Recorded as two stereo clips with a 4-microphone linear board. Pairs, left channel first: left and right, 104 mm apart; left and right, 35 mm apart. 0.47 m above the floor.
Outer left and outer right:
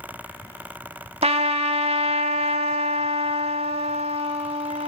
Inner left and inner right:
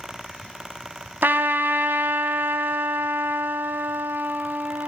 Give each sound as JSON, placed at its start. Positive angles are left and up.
{"t": 1.2, "sound": "a trumpet", "side_deg": -80, "distance_m": 0.7}